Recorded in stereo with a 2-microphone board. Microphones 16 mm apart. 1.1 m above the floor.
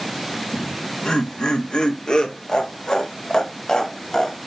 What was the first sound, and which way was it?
Laughter, 55° left (ahead or behind).